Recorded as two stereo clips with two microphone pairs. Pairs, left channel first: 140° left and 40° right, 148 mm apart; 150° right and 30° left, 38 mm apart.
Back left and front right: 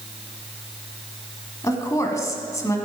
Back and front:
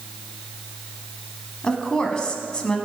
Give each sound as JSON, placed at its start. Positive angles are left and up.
{"t": 1.6, "sound": "a woman speaking", "azimuth_deg": 180, "distance_m": 1.1}